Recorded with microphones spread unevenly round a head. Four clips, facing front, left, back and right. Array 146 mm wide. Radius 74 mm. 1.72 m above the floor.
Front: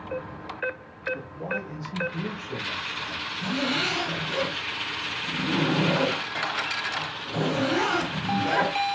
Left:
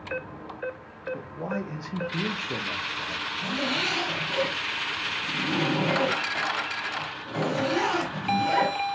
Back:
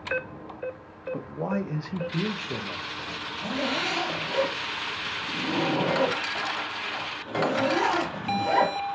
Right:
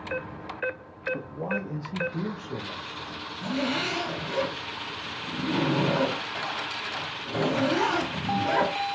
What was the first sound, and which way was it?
A man speaking, straight behind.